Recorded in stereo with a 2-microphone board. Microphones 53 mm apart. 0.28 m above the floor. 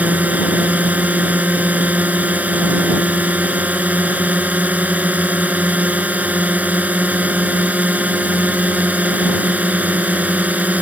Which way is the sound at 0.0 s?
25° right (ahead or behind).